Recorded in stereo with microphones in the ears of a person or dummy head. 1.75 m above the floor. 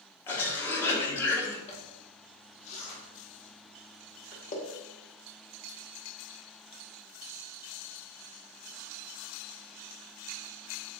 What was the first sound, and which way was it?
A cough, 20° left (ahead or behind).